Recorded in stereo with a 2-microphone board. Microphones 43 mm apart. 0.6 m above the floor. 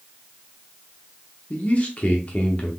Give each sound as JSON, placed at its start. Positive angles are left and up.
{"t": 1.5, "sound": "a man speaking", "side_deg": 35, "distance_m": 1.1}